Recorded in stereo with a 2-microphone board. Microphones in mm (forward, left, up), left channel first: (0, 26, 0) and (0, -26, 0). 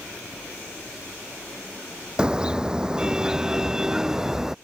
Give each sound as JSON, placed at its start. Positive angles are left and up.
{"t": 2.2, "sound": "a car horn", "side_deg": -15}